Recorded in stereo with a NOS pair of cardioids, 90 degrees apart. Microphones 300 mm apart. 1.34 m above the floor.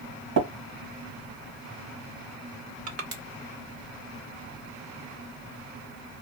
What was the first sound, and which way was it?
Tapping, 55° right.